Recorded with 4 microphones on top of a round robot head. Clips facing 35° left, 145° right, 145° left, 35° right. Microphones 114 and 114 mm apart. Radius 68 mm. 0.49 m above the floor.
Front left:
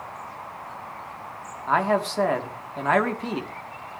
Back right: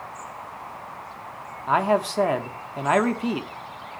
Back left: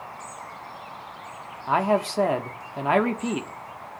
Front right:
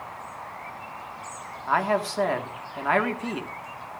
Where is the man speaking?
160° left, 1.1 m.